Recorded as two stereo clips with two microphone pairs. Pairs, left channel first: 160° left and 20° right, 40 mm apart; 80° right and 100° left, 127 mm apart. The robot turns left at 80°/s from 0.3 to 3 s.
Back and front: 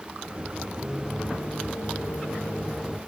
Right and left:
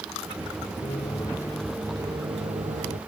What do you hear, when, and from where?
0.8 s a microwave: 105° right; by 3.0 s 80° left